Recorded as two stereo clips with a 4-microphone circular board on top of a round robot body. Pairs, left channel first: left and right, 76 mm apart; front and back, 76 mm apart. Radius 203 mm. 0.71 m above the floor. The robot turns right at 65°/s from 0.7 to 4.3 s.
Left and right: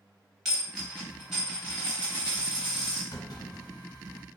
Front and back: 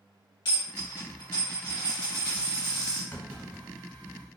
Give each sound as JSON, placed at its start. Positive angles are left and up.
{"t": 0.5, "sound": "a dropped coin", "azimuth_deg": -5, "distance_m": 0.8}
{"t": 3.1, "sound": "a clunk", "azimuth_deg": 60, "distance_m": 1.1}